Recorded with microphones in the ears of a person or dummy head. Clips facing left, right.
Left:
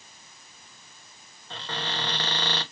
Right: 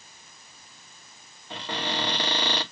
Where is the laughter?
I don't hear laughter.